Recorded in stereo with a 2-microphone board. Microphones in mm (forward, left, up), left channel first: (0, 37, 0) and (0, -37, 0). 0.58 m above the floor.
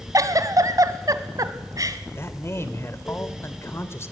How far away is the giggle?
About 1.3 m.